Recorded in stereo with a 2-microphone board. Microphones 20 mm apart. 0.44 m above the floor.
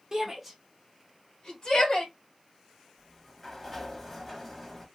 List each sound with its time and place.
0.1 s a shout: 25° right (ahead or behind), 1.2 m; by 2.1 s 55° left (ahead or behind), 2 m
3.0 s a sliding door: 5° left (ahead or behind), 0.7 m